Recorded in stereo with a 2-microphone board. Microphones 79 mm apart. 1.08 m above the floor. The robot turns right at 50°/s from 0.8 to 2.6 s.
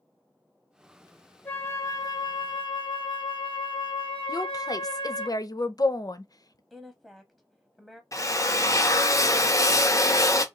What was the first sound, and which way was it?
A flute, 30° left.